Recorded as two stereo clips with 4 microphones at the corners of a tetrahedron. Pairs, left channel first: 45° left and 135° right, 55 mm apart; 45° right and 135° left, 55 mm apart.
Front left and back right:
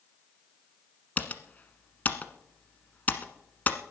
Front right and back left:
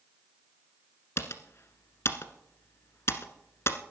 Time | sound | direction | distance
1.2 | typing on a keyboard | 15° right | 1.2 m